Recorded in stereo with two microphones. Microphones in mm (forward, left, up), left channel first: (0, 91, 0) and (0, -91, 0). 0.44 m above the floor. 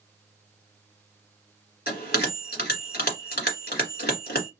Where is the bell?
55° left (ahead or behind), 1.4 m.